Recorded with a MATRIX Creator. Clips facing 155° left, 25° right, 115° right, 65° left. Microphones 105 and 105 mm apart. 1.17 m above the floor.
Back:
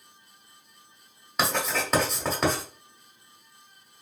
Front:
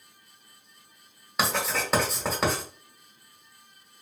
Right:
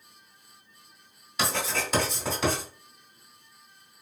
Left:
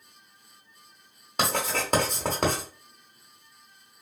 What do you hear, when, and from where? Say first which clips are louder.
1.4 s writing: back 1 dB, left 2 dB; 65° left, 1.3 m